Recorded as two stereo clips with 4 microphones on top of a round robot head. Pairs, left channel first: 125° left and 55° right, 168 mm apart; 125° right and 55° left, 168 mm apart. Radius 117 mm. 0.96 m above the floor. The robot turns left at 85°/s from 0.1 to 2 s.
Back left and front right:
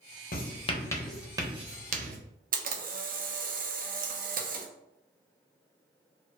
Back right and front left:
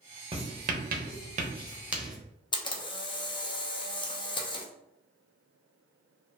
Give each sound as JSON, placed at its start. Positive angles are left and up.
{"t": 0.3, "sound": "writing", "azimuth_deg": 110, "distance_m": 1.1}
{"t": 2.5, "sound": "a camera shutter", "azimuth_deg": -70, "distance_m": 0.9}